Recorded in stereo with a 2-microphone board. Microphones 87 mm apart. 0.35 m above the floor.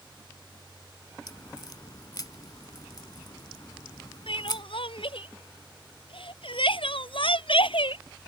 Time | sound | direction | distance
1.3 | a crack | 50° left (ahead or behind) | ?
4.3 | crying | 80° left | ?